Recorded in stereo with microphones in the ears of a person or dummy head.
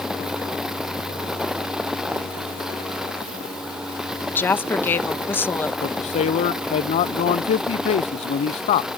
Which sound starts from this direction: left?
A man speaking, at 5.8 s.